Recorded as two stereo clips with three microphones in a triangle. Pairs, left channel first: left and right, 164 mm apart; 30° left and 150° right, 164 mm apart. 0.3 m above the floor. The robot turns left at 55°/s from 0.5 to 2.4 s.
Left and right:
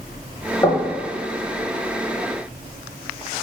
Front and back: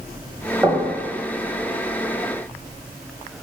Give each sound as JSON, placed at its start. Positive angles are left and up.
{"t": 0.6, "sound": "knocking", "azimuth_deg": 140, "distance_m": 0.9}